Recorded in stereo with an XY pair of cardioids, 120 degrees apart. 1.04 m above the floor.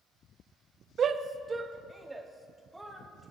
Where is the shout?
45° right, 0.8 m; by 3.3 s 5° right, 2.5 m.